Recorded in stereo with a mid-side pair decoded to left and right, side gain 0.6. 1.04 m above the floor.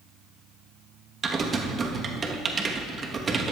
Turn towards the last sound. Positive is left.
turn(degrees=-35)